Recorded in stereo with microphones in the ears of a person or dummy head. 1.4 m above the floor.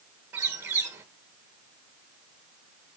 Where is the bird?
10° right (ahead or behind), 1.6 m.